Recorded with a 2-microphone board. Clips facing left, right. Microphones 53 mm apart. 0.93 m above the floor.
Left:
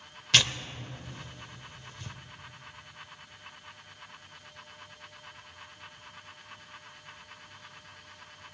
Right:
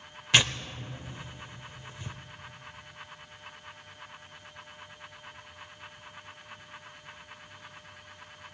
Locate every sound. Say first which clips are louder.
0.3 s tearing paper: right 1 dB; 15° right (ahead or behind), 0.7 m